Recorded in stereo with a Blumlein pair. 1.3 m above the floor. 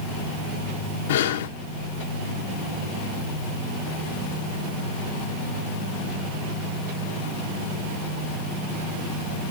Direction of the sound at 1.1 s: 55° left.